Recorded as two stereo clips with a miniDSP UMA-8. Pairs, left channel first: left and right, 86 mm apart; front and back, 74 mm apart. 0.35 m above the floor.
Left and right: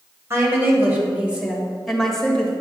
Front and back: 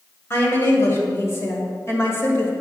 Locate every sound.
0.3 s a woman speaking: 45° right, 2.0 m; by 2.5 s 20° left, 1.6 m